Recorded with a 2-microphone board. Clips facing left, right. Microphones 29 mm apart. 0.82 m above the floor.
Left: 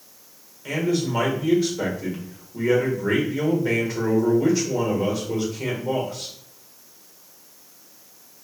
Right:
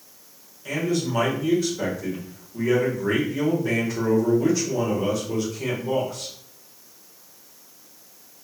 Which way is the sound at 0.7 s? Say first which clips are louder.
Left 1 dB; 15° left (ahead or behind).